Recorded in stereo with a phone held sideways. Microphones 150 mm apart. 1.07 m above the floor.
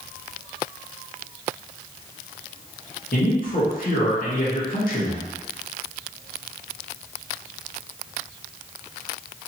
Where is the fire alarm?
No fire alarm in this recording.